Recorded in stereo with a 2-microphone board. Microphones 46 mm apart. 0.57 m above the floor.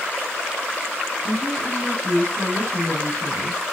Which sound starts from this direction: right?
A woman speaking, at 1.2 s.